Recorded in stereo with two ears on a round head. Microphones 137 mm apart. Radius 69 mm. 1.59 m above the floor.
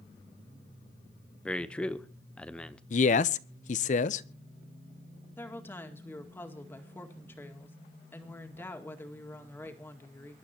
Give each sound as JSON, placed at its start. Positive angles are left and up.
{"t": 1.4, "sound": "a man speaking", "side_deg": 5, "distance_m": 0.9}
{"t": 2.9, "sound": "a man speaking", "side_deg": 50, "distance_m": 0.7}
{"t": 5.4, "sound": "a woman speaking", "side_deg": 15, "distance_m": 2.0}